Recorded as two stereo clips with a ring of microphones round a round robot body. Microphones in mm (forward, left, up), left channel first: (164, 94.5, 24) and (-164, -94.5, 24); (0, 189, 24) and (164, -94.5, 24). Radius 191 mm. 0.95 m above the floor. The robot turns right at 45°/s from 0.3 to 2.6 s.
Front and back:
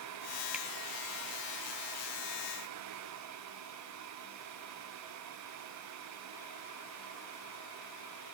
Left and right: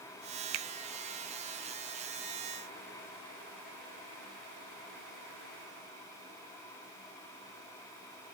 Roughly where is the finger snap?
Ahead right.